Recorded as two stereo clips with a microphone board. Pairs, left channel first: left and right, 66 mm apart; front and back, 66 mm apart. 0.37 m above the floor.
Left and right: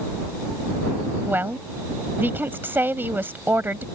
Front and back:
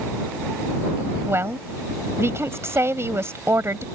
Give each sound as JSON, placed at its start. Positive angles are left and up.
{"t": 1.2, "sound": "a woman speaking", "azimuth_deg": -140}